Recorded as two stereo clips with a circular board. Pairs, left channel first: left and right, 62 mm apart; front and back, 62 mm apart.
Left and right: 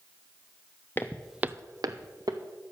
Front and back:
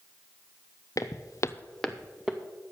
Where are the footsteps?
35° left, 0.8 m; by 2.4 s 100° right, 1.5 m.